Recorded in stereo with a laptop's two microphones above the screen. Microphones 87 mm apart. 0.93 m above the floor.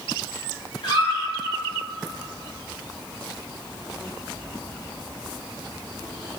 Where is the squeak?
60° left (ahead or behind), 1.9 m.